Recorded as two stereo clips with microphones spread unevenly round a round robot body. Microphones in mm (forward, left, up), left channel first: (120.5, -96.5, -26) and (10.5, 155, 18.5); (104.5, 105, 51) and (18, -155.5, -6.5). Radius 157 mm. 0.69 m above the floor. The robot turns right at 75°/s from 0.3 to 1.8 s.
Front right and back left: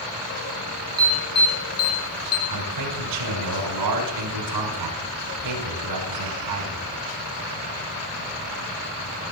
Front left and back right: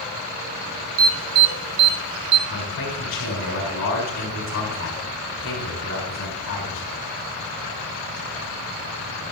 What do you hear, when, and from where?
1.0 s an alarm: 165° right, 1.2 m; by 2.4 s 105° right, 1.2 m
2.5 s a man speaking: 125° left, 6 m